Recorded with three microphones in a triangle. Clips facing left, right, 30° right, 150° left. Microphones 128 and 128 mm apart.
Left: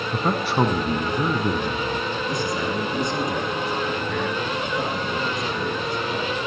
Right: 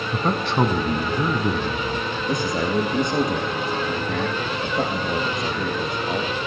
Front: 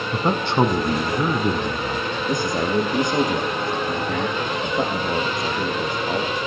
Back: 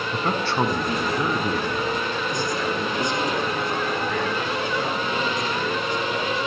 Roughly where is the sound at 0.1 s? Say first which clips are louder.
Even, front 4 dB; ahead.